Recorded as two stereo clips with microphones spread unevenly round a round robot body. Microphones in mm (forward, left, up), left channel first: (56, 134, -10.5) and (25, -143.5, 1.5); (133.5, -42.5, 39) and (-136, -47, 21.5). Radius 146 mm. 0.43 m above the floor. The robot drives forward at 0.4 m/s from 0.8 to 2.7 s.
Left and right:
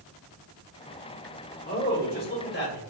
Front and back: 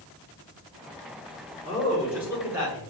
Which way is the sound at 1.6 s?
90° left.